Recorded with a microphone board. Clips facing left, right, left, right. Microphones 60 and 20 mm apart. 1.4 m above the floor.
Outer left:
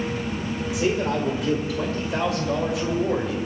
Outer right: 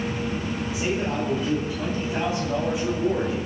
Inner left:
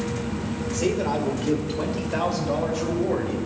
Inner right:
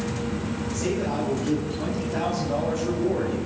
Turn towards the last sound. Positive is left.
turn(degrees=70)  # may be behind; listen again after turning